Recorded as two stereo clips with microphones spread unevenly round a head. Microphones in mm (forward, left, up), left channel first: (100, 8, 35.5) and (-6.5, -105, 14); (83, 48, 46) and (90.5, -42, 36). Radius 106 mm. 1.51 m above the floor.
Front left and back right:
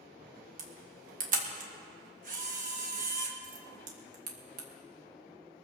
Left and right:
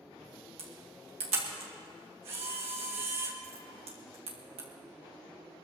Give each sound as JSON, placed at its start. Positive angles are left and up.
{"t": 0.6, "sound": "a camera shutter", "azimuth_deg": -100, "distance_m": 2.5}